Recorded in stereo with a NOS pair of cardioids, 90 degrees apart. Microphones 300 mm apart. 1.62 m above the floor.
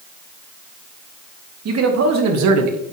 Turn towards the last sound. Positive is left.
turn(degrees=-75)